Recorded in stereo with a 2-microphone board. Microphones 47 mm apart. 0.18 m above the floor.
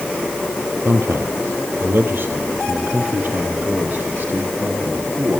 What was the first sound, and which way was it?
A man speaking, 55° right (ahead or behind).